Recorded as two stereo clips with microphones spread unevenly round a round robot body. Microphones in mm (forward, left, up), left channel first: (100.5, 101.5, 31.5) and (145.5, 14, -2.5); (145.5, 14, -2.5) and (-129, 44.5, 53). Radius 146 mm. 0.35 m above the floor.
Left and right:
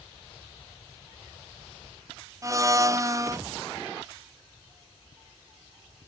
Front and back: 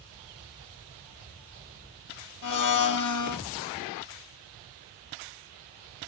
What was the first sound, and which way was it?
A blender, 10° right.